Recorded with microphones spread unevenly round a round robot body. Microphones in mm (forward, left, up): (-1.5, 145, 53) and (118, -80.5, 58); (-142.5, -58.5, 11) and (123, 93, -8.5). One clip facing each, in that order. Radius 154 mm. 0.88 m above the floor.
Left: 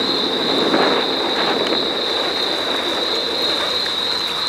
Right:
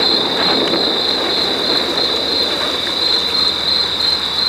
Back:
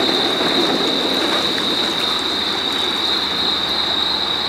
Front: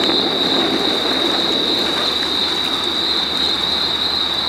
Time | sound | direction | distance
0.0 | an insect | 50° right | 8 m